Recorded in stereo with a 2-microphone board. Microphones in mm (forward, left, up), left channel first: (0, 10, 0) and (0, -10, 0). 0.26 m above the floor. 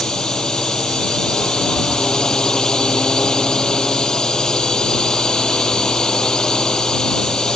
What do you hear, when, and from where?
0.0 s a drone: 40° left (ahead or behind)